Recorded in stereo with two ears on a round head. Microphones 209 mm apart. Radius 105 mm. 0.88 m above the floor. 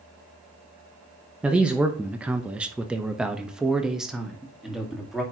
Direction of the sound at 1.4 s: 5° right (ahead or behind).